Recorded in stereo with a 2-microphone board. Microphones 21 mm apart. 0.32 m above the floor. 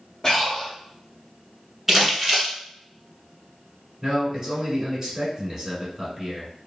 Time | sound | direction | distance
0.2 | breathing | 25° left (ahead or behind) | 1.4 m
1.9 | crumpling | 5° right (ahead or behind) | 1.3 m
4.0 | a man speaking | 15° right (ahead or behind) | 1.4 m